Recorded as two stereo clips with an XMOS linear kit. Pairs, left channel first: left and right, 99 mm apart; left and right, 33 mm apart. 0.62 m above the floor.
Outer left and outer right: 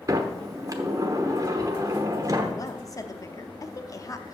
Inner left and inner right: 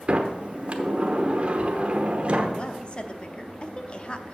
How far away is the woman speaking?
About 0.7 m.